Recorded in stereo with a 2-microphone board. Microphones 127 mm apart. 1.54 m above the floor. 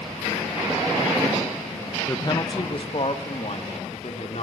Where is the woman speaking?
20° left (ahead or behind), 1.3 m; by 4.4 s 55° left (ahead or behind), 4.5 m.